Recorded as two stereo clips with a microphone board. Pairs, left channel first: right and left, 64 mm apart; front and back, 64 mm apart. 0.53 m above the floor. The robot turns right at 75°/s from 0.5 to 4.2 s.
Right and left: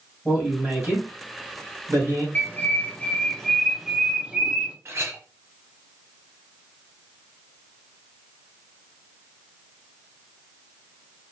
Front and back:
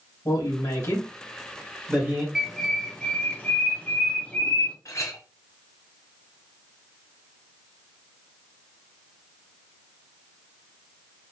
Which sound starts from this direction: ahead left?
A clink, at 4.8 s.